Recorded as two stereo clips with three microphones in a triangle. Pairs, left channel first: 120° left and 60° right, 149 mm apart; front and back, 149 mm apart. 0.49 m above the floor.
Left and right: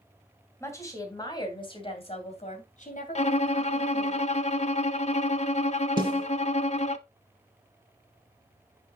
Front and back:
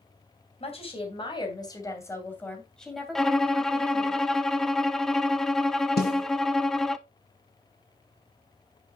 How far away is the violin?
About 0.5 m.